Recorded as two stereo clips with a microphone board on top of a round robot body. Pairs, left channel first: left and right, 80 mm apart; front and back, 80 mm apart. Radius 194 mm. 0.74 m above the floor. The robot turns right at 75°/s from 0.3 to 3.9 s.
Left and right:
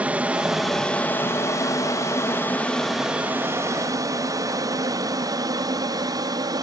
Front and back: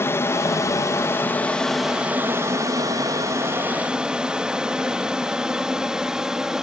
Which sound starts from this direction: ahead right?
An aircraft, at 0.0 s.